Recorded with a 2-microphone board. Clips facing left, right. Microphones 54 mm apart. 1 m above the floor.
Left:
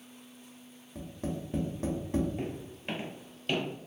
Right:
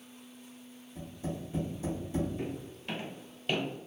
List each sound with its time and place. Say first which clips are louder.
0.9 s tapping: left 2 dB; 60° left (ahead or behind), 1.2 m
2.4 s footsteps: left 1 dB; 50° left (ahead or behind), 1.4 m; by 3.6 s 15° right (ahead or behind), 1.4 m